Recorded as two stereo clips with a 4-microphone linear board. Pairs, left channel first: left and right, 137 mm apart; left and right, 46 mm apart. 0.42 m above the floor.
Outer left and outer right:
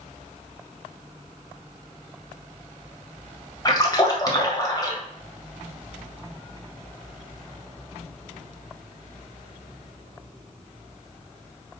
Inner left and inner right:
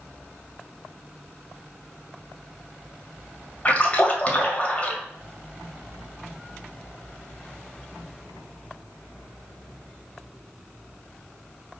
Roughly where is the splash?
Left.